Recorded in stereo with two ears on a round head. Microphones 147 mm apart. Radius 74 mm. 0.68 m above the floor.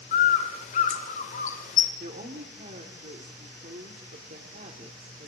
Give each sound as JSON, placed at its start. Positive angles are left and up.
{"t": 0.1, "sound": "a bird", "side_deg": 45, "distance_m": 2.5}
{"t": 2.0, "sound": "a woman speaking", "side_deg": -45, "distance_m": 2.0}